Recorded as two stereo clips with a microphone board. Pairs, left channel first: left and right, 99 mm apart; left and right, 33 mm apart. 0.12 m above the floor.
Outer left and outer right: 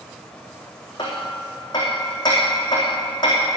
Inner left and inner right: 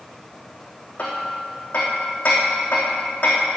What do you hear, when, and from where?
1.0 s hammering: 40° left (ahead or behind), 4 m